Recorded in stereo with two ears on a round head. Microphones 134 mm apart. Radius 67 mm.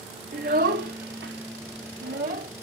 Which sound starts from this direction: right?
A child speaking, at 0.3 s.